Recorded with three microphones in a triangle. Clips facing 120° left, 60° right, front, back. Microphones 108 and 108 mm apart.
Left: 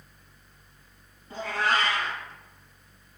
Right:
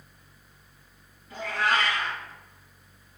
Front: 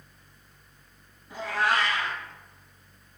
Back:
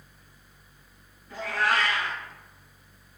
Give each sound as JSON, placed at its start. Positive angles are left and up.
{"t": 1.3, "sound": "a cat meowing", "azimuth_deg": 65, "distance_m": 0.9}